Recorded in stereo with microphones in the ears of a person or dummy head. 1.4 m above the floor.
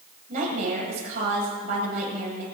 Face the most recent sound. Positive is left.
turn(degrees=-40)  # may be behind; listen again after turning